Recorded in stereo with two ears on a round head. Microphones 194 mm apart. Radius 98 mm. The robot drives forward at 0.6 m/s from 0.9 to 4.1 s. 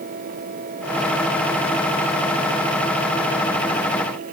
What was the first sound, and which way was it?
Only background noise.